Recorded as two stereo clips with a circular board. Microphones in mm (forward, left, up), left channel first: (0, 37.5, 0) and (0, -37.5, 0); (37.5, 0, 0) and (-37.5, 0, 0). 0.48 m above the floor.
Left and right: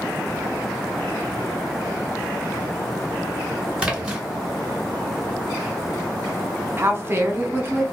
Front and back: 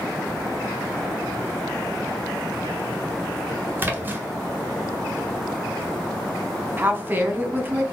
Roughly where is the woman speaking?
Behind right.